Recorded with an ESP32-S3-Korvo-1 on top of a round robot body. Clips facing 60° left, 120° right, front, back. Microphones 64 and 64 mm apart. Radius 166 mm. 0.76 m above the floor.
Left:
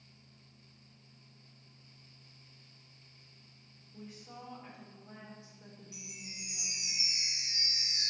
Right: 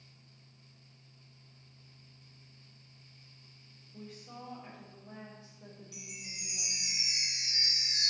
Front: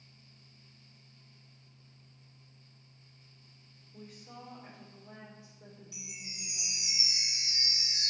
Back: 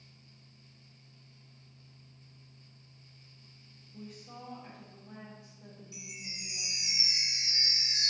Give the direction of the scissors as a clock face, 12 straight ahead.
No scissors in this recording.